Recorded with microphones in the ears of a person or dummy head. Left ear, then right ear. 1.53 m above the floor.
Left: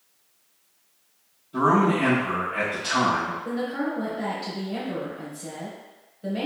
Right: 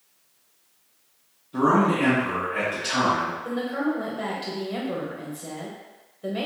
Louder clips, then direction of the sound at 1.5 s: Even; centre (ahead or behind).